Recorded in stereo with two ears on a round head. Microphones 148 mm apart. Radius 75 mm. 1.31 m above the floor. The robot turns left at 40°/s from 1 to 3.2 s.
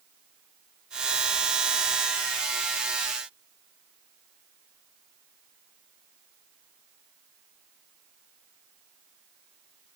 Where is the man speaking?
No man speaking in this recording.